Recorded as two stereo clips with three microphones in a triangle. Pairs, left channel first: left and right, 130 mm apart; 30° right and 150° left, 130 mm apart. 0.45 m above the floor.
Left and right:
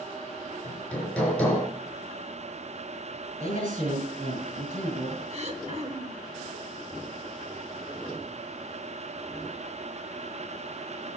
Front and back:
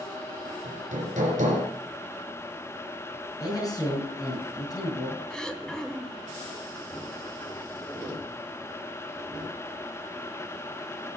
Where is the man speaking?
90° right, 5 m.